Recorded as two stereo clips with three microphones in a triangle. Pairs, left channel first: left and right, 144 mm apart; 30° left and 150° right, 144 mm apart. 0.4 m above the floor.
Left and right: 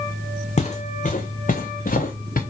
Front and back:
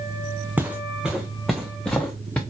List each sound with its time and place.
0.6 s footsteps: 130° left, 1.8 m; by 2.4 s 110° left, 2.5 m